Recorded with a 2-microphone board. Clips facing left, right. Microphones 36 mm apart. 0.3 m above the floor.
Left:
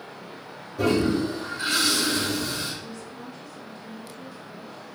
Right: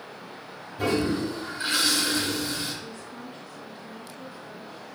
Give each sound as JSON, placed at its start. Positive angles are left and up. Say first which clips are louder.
{"t": 0.8, "sound": "a toilet flushing", "louder": "left 3 dB", "side_deg": 70, "distance_m": 3.0}
{"t": 2.8, "sound": "a woman speaking", "louder": "left 1 dB", "side_deg": -10, "distance_m": 1.7}